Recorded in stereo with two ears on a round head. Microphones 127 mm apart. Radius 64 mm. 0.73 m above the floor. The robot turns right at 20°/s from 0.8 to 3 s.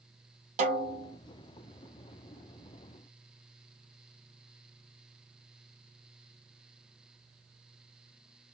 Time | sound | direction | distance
0.6 | a snare drum | 50° right (ahead or behind) | 1.6 m